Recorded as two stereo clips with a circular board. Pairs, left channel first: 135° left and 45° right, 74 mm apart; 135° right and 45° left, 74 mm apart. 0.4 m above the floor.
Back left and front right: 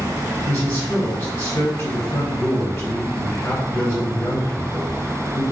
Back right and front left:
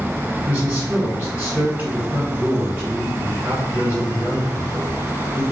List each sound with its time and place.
0.5 s a man speaking: 100° left, 1.9 m